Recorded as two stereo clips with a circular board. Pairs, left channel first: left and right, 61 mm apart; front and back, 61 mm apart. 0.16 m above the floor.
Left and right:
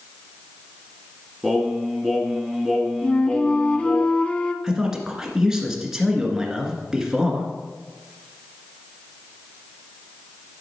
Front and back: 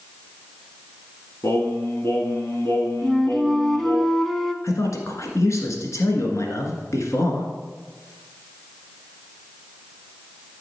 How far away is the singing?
About 1.3 m.